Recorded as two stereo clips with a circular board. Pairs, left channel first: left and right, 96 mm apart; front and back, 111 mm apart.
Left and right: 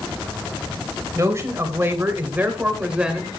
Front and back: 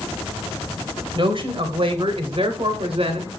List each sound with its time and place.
1.1 s a man speaking: 145° right, 2.5 m; by 3.3 s 175° right, 2 m